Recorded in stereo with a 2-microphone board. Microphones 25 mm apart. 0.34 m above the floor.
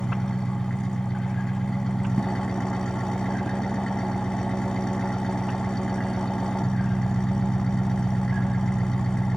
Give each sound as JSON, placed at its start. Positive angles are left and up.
{"t": 0.0, "sound": "an engine running", "side_deg": 30, "distance_m": 1.4}